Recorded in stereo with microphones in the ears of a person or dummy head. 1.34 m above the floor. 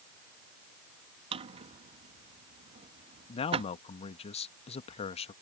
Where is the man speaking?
25° left (ahead or behind).